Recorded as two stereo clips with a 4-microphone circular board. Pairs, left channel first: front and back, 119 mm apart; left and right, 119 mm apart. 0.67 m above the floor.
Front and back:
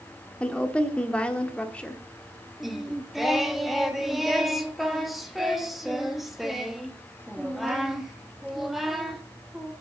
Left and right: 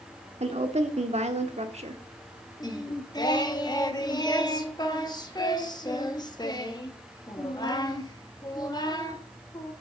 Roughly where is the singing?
Left.